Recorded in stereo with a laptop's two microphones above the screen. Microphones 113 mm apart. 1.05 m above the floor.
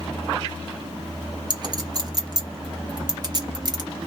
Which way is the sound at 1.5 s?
35° right (ahead or behind).